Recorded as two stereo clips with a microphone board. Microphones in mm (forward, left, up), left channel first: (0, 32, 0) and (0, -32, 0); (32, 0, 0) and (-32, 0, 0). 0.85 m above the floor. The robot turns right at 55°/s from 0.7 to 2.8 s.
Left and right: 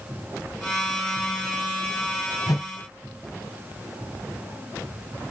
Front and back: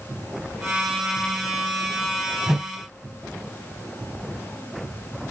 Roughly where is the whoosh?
Left.